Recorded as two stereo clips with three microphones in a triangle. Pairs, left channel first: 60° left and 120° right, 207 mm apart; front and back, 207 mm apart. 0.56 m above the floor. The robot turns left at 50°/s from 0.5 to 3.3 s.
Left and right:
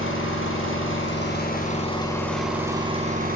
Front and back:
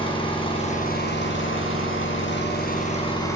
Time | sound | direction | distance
0.0 | an engine running | 65° left | 4.5 m